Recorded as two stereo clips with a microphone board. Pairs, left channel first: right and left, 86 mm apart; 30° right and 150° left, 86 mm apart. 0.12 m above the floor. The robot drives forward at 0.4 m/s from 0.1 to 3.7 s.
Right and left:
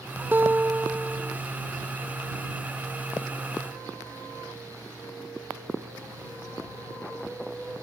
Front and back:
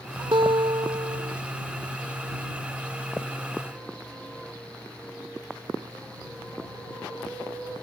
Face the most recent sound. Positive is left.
turn(degrees=170)